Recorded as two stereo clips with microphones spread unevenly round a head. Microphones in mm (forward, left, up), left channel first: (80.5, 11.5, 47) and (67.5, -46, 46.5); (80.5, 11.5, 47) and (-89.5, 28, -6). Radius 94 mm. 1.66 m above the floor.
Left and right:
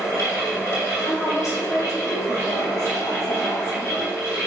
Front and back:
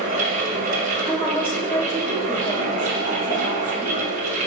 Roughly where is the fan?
Behind left.